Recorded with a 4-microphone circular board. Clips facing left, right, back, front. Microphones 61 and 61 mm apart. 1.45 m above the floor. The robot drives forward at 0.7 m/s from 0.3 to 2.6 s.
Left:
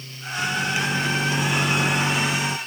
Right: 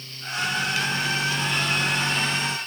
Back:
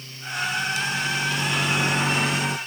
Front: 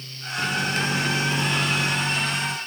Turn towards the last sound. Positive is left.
turn(degrees=160)